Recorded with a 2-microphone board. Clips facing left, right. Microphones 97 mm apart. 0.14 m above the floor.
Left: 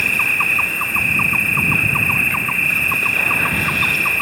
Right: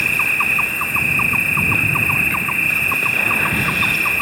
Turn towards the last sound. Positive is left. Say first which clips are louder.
# even
turn(degrees=0)  # may be behind; listen again after turning